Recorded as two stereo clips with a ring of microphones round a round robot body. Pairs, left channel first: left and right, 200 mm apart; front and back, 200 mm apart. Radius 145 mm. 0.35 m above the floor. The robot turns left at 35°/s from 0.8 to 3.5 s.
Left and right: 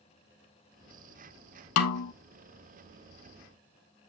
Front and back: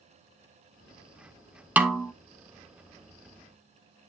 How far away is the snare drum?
About 0.8 m.